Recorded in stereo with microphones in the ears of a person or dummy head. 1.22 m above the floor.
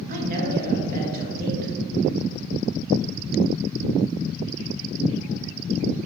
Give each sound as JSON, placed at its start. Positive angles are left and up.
{"t": 0.1, "sound": "a woman speaking", "side_deg": -45, "distance_m": 1.5}